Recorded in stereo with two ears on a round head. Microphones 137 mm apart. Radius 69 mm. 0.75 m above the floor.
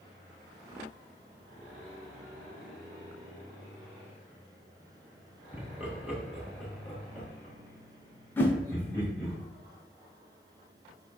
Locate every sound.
5.5 s laughter: 10° right (ahead or behind), 1.2 m; by 9.3 s 15° left (ahead or behind), 3 m
8.4 s a whoosh: 15° left (ahead or behind), 0.7 m